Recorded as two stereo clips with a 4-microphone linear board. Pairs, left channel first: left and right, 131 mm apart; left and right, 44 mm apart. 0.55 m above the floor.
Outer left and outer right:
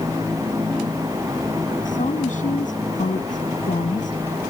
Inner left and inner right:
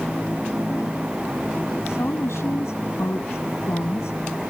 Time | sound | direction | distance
1.9 | a woman speaking | 80° left | ?